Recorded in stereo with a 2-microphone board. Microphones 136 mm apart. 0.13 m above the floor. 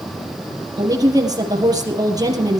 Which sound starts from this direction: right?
A woman speaking, at 0.8 s.